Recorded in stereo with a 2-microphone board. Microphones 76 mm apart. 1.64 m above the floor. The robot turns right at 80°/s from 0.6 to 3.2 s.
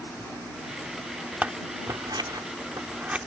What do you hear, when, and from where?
1.4 s scissors: 20° right (ahead or behind); by 3.2 s 15° right (ahead or behind)